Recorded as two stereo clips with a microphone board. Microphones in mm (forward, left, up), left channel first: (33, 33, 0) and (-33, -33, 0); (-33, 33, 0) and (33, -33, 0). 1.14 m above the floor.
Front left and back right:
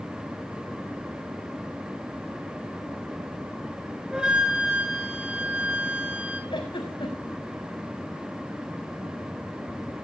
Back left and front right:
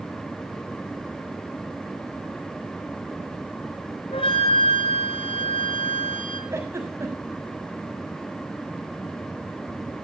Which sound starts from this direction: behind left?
A flute, at 4.1 s.